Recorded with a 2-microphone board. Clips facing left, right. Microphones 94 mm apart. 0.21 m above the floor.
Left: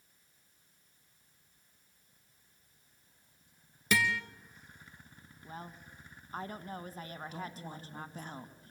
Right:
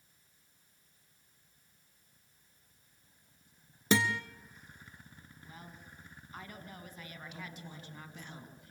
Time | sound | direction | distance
3.9 | a guitar | 30° right (ahead or behind) | 1.2 m
5.4 | a woman speaking | 40° left (ahead or behind) | 1.7 m
7.3 | a woman speaking | 40° left (ahead or behind) | 2 m